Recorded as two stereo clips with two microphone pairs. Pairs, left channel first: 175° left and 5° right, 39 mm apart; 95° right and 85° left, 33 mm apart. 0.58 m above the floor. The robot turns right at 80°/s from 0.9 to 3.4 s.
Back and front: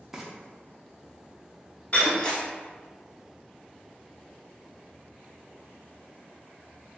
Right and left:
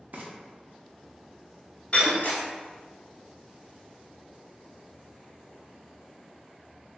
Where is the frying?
75° left, 0.5 m.